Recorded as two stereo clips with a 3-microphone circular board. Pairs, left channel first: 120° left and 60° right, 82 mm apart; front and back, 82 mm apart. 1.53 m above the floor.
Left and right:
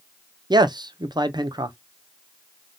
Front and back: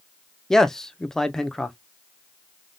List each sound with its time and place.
0.5 s a man speaking: 85° right, 0.5 m